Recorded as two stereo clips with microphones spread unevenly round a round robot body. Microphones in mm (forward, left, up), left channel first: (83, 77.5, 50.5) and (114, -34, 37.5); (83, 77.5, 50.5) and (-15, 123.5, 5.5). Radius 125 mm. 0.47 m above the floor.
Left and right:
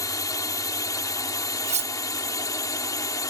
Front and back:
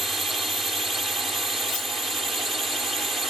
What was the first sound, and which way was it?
A drone, 130° left.